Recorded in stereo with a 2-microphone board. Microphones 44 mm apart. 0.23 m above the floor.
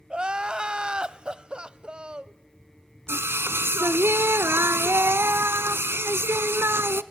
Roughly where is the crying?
Centre.